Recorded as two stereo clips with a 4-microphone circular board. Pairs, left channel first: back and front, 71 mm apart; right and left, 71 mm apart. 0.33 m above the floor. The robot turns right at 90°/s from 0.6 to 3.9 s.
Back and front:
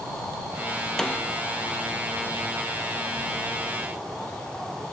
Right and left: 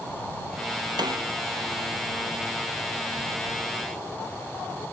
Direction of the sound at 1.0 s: 100° left.